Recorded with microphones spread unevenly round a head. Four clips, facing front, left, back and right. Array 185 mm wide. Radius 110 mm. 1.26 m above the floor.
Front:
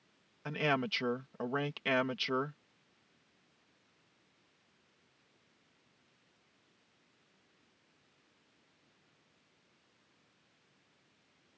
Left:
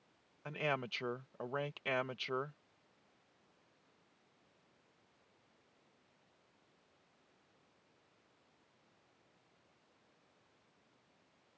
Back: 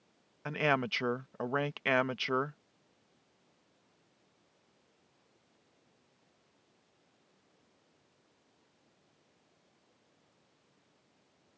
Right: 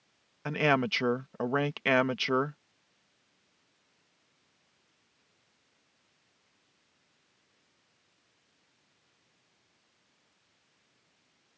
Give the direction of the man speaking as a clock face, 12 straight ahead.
3 o'clock.